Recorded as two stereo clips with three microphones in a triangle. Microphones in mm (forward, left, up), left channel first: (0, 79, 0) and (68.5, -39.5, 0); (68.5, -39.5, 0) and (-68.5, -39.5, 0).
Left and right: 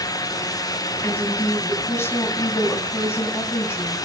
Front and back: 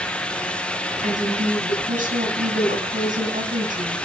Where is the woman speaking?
170° right, 4.5 m.